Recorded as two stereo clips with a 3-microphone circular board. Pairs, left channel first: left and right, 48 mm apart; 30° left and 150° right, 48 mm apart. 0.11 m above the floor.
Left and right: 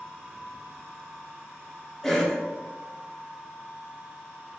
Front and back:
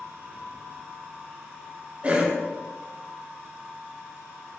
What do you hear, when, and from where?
2.0 s a cough: 170° left, 1.2 m